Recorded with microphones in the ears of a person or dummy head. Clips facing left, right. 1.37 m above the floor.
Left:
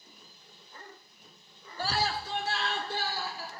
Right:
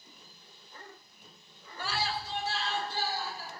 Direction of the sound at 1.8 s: 30° left (ahead or behind).